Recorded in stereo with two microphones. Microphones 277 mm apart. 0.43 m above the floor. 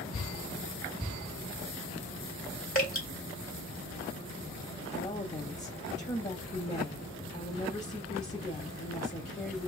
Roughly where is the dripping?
Left.